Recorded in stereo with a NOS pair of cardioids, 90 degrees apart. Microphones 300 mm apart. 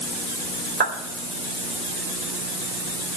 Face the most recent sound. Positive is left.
turn(degrees=-35)